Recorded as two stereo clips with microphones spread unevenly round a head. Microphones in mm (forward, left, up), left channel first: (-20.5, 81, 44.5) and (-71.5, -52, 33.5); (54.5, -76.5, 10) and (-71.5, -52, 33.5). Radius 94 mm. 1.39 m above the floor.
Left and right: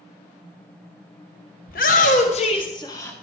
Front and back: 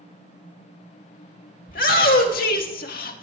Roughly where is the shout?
Ahead left.